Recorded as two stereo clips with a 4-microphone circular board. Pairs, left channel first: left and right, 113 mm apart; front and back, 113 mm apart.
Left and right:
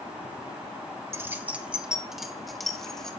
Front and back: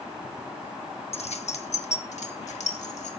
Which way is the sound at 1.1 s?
25° right.